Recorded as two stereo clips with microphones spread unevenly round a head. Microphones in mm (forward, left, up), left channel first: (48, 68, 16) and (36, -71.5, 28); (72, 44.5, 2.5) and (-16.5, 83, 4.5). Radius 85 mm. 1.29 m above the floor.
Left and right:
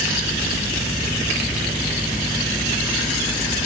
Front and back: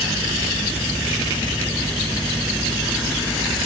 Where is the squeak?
I don't hear a squeak.